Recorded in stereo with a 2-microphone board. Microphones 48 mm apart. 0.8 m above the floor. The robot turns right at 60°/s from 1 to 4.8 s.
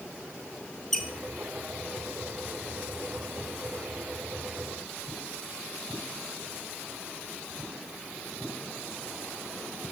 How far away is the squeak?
About 0.9 m.